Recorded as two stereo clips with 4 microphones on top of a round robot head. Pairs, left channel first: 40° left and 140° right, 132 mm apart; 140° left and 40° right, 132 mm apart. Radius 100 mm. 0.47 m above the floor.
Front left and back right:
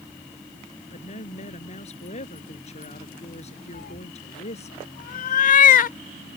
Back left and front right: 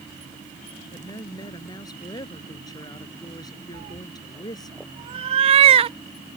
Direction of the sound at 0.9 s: 80° left.